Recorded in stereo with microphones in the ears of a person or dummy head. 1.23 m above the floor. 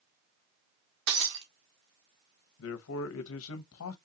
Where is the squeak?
I don't hear a squeak.